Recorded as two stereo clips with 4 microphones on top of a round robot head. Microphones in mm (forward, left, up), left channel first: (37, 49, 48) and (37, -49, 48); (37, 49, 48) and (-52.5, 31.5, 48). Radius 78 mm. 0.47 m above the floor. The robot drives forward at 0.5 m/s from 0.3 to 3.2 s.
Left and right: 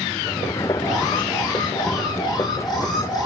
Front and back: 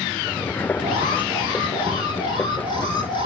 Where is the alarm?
Straight behind, 8 m.